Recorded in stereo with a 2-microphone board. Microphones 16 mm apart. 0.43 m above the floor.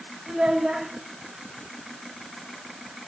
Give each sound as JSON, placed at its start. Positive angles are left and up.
{"t": 0.3, "sound": "a child speaking", "side_deg": -50, "distance_m": 1.4}